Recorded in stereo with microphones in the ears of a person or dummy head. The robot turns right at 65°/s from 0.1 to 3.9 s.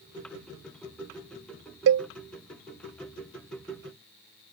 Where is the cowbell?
75° right (ahead or behind); by 2.1 s 60° right (ahead or behind).